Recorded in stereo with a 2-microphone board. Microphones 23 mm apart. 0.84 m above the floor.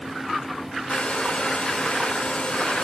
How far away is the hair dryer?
About 3.5 m.